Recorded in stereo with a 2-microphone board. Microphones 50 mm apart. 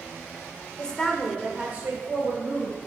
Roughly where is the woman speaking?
Left.